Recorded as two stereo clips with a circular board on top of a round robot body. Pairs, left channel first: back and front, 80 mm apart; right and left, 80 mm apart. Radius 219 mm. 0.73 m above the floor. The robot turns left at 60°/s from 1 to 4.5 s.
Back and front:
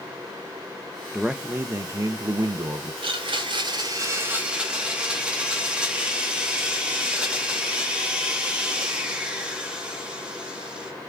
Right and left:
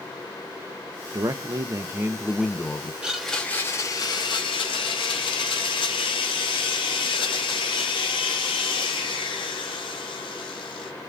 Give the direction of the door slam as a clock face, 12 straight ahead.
I don't hear a door slam.